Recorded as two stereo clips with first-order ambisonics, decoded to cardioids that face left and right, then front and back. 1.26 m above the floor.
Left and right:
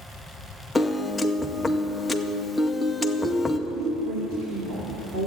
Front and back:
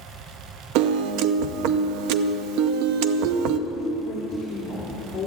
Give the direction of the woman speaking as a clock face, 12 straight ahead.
2 o'clock.